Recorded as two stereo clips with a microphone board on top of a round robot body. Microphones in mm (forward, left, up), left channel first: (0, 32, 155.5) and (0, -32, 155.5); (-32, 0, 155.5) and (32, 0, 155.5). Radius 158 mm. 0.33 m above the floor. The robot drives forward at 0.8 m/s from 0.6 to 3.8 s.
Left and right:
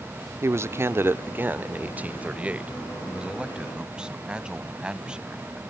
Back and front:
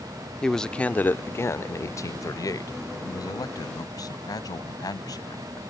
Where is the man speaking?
105° right; by 5.6 s 165° right.